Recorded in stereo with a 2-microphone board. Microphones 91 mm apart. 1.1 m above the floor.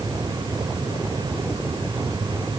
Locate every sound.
Only background noise.